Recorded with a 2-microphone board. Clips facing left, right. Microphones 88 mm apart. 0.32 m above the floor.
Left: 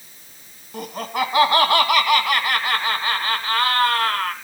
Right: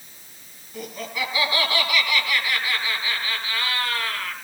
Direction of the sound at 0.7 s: 65° left (ahead or behind).